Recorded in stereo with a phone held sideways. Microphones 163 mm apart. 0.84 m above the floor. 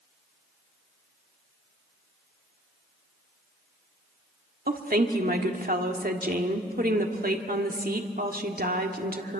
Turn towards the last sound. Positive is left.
turn(degrees=-65)  # may be behind; listen again after turning